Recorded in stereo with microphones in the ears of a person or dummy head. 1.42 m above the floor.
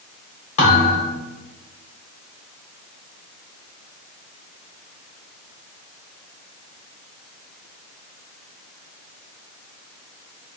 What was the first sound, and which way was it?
A thud, 40° left (ahead or behind).